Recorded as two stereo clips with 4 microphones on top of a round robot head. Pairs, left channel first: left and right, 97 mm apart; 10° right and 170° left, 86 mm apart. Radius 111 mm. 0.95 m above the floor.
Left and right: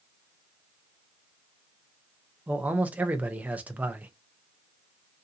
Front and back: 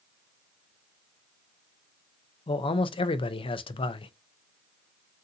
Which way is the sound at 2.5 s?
15° right.